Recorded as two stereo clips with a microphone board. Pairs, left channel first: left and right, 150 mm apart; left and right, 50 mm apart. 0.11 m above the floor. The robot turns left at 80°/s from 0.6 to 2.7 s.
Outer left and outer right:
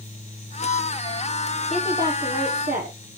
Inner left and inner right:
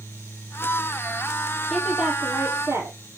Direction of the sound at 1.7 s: 5° left.